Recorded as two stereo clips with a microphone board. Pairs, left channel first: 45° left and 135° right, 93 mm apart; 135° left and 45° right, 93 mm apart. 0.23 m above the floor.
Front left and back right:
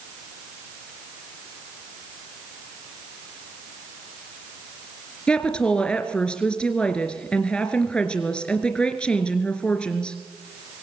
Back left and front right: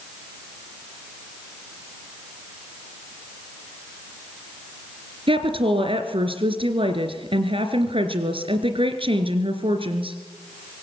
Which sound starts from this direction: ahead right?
A woman speaking, at 5.3 s.